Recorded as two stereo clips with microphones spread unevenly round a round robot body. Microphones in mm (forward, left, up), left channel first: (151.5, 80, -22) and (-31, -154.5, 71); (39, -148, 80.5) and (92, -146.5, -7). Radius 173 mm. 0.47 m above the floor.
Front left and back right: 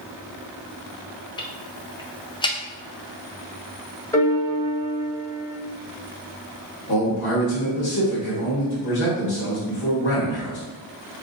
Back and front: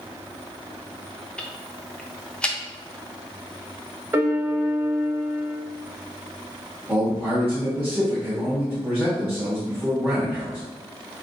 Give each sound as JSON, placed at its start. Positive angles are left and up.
{"t": 1.4, "sound": "ticking", "azimuth_deg": -5, "distance_m": 0.6}
{"t": 4.1, "sound": "a piano", "azimuth_deg": -25, "distance_m": 1.0}
{"t": 6.9, "sound": "a man speaking", "azimuth_deg": 25, "distance_m": 1.2}